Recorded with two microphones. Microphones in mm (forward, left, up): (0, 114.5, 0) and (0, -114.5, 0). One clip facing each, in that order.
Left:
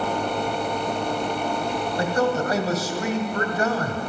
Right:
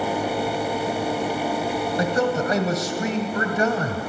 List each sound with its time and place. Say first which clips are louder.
2.0 s a man speaking: even; 25° right (ahead or behind), 1.3 m